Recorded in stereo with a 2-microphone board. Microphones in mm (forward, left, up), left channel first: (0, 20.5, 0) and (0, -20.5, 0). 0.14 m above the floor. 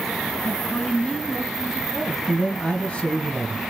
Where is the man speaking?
30° left (ahead or behind), 1.6 m.